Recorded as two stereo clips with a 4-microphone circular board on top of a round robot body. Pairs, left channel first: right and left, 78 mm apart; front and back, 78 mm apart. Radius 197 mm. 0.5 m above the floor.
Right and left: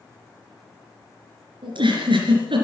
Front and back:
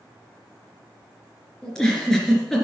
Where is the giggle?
80° left, 3 m.